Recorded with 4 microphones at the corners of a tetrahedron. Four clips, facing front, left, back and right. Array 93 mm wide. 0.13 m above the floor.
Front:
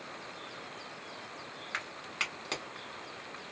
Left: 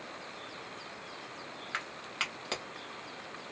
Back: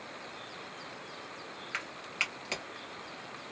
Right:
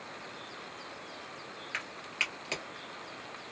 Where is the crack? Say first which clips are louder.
Right 1 dB, back 1 dB; 45° left, 1.5 m.